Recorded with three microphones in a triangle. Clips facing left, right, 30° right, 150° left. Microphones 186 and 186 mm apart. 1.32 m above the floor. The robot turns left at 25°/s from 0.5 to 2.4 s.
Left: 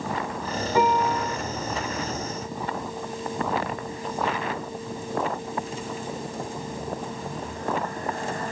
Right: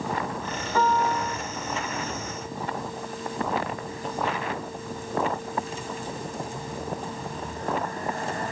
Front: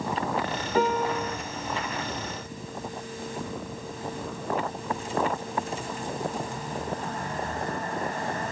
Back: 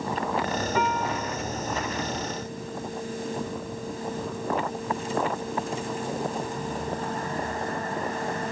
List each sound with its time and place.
0.8 s a piano: 15° left, 2.5 m; by 1.4 s straight ahead, 2.5 m